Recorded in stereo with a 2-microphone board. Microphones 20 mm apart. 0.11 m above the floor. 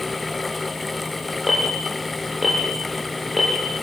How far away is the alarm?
About 6.5 m.